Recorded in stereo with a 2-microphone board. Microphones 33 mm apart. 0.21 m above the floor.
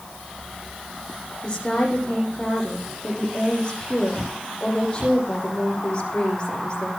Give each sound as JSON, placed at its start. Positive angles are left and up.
{"t": 1.4, "sound": "a woman speaking", "side_deg": 30, "distance_m": 9.5}